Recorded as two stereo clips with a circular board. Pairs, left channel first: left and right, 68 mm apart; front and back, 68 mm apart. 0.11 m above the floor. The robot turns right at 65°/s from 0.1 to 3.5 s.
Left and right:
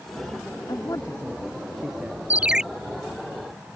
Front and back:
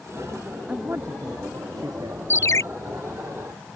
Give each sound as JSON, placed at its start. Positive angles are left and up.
{"t": 0.7, "sound": "a man speaking", "azimuth_deg": 105}
{"t": 2.3, "sound": "a ringtone", "azimuth_deg": -35}